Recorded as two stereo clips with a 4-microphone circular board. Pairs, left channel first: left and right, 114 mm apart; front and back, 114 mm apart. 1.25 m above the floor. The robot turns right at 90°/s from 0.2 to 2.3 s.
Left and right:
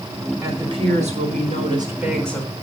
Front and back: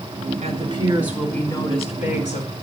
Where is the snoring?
I don't hear snoring.